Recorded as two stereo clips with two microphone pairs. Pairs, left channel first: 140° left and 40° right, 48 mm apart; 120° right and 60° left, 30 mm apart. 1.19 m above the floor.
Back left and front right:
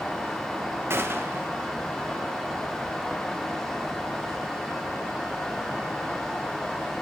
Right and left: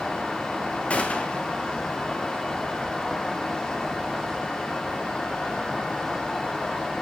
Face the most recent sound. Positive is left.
turn(degrees=-75)